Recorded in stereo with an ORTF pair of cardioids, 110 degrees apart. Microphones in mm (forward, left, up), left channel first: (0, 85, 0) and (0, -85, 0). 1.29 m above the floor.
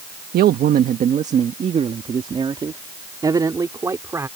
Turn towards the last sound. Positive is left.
turn(degrees=-15)